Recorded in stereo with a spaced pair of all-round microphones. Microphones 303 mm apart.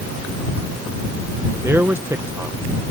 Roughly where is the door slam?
No door slam in this recording.